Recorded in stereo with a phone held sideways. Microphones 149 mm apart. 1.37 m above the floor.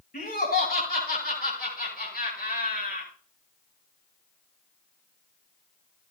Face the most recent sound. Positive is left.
turn(degrees=80)